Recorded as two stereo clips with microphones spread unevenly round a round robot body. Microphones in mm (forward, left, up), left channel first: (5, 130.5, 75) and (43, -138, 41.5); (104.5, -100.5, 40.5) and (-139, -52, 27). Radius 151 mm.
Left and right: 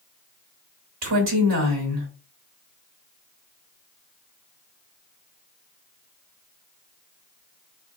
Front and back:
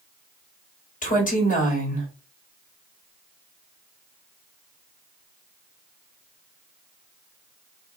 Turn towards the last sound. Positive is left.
turn(degrees=-70)